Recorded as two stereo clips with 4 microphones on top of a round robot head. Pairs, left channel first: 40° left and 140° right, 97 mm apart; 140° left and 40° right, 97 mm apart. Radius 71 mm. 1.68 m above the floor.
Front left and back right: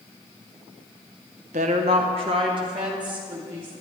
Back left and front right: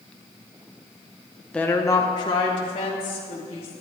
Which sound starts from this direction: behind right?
A woman speaking, at 1.5 s.